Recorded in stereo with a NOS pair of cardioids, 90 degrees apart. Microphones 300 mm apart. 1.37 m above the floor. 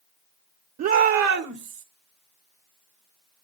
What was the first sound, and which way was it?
A shout, 70° right.